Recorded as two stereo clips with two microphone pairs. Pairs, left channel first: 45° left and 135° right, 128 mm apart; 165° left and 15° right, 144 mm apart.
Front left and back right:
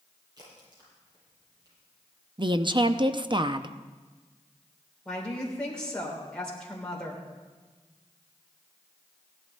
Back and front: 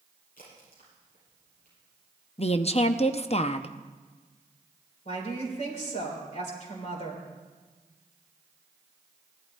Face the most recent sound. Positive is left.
turn(degrees=130)